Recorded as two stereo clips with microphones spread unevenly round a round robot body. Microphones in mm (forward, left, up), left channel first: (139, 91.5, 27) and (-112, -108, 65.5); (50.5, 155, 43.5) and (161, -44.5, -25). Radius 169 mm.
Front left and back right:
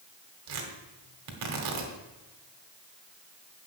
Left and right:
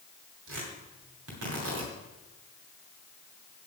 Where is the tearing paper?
105° right, 2 m.